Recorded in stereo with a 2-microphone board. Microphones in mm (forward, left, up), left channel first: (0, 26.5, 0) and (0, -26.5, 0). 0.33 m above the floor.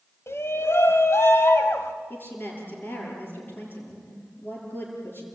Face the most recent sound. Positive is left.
turn(degrees=40)  # may be behind; listen again after turning